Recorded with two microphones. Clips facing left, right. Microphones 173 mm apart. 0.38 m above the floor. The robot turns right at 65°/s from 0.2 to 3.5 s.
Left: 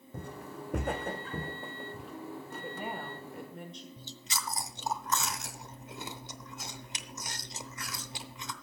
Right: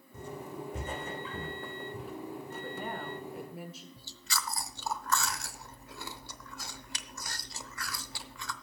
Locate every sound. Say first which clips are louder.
0.1 s footsteps: right 2 dB; 60° left (ahead or behind), 1.2 m; by 2.1 s 5° right (ahead or behind), 2 m
2.6 s a woman speaking: even; 15° left (ahead or behind), 1.1 m; by 3.9 s 5° right (ahead or behind), 1.1 m
4.0 s chewing: right 2 dB; 20° left (ahead or behind), 0.6 m